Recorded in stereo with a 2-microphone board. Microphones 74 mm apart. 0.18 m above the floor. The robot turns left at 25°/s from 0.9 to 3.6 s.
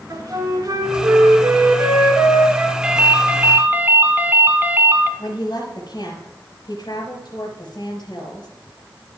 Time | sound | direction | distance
0.1 | a flute | 110° right | 2.5 m
2.8 | a ringtone | 15° right (ahead or behind) | 1.1 m
5.2 | a woman speaking | 65° left (ahead or behind) | 3.5 m